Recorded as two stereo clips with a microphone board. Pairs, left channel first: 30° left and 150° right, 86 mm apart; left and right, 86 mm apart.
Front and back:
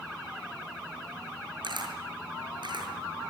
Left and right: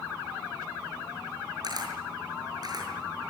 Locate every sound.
1.6 s a camera shutter: 125° right, 6.5 m